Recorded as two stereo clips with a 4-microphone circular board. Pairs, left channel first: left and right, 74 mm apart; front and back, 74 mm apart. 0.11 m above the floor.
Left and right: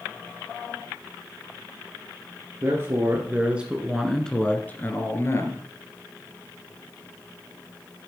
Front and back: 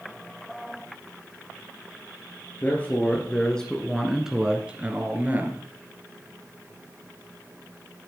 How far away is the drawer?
No drawer in this recording.